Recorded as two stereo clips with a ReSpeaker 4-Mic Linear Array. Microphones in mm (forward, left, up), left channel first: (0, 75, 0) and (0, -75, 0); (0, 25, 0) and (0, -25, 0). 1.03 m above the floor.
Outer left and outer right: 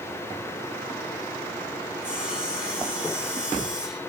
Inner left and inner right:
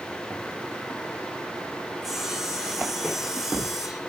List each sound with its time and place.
2.0 s sawing: 10° right (ahead or behind), 3.5 m